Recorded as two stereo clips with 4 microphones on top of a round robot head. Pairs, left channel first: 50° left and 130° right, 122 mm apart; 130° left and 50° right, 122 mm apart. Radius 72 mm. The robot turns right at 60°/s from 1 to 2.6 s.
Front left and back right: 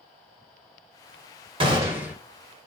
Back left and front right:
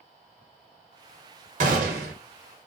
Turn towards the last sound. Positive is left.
turn(degrees=-15)